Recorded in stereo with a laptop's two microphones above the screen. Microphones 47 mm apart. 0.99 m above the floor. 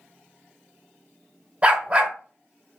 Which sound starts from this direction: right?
A dog barking, at 1.6 s.